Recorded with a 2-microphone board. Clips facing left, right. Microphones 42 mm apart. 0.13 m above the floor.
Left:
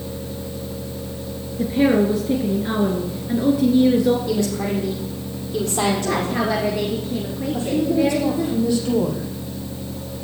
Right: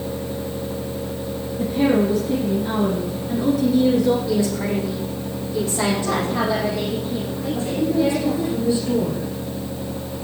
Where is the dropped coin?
I don't hear a dropped coin.